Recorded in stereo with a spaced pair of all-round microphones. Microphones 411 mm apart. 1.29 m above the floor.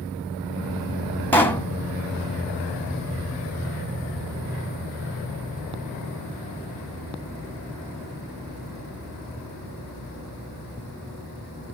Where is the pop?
5° left (ahead or behind), 0.8 m.